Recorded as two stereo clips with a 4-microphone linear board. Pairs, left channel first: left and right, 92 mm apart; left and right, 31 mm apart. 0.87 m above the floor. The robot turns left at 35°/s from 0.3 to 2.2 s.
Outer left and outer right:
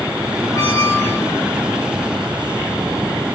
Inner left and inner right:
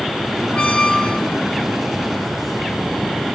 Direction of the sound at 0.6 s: 45° left (ahead or behind).